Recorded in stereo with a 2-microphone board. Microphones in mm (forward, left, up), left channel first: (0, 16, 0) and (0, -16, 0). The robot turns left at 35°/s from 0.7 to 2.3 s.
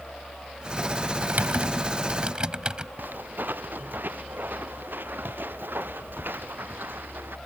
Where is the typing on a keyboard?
65° right (ahead or behind); by 2.9 s 30° right (ahead or behind).